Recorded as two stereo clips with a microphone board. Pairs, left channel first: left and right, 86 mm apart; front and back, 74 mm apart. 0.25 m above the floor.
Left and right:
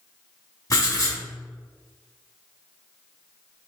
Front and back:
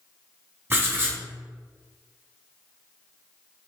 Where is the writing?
130° left, 0.9 m.